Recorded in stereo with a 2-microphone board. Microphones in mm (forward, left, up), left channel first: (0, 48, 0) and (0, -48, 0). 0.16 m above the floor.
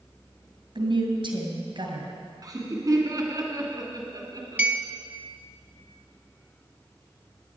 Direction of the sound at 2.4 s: 40° right (ahead or behind).